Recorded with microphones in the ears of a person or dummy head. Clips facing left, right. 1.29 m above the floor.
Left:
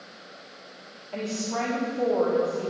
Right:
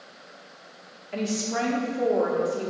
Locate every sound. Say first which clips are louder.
1.1 s a woman speaking: right 2 dB; 20° right (ahead or behind), 1.4 m